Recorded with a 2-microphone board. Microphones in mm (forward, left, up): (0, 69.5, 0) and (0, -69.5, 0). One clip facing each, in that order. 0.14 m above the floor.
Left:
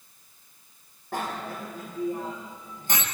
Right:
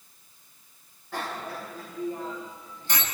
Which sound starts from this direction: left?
A bicycle bell, at 1.1 s.